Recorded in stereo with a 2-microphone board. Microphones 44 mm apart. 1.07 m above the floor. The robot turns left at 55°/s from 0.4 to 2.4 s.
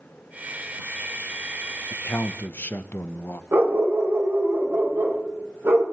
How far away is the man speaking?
About 0.8 m.